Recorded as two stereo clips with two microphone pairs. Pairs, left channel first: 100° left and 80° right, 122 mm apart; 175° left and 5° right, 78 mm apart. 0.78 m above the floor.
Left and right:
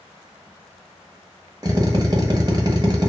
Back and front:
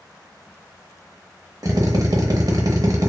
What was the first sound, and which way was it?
A drill, 30° right.